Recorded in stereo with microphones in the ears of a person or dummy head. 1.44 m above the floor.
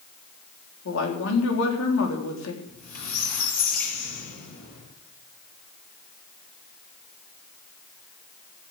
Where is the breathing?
I don't hear breathing.